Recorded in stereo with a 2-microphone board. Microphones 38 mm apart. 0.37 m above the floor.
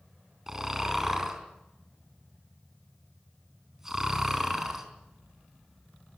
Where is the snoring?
10° right (ahead or behind), 4 m.